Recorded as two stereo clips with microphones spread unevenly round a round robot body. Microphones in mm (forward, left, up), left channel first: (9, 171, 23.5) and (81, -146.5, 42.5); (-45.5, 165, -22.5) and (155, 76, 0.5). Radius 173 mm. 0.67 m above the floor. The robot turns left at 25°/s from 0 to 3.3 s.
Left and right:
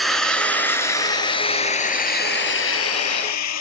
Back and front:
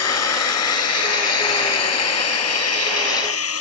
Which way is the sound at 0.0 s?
165° right.